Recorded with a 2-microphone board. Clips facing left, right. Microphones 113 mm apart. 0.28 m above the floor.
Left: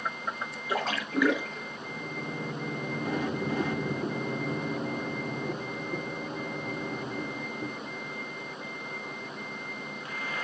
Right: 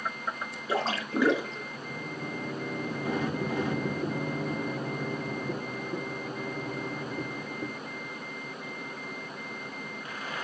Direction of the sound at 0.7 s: 30° right (ahead or behind).